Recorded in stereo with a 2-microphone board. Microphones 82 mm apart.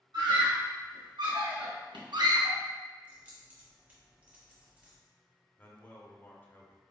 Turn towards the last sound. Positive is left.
turn(degrees=25)  # may be behind; listen again after turning